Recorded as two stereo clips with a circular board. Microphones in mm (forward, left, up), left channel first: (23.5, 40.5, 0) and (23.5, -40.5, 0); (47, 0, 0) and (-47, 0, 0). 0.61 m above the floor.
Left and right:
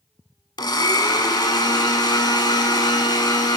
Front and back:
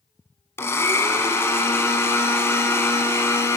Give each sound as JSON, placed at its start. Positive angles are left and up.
{"t": 0.6, "sound": "a blender", "azimuth_deg": 60, "distance_m": 1.1}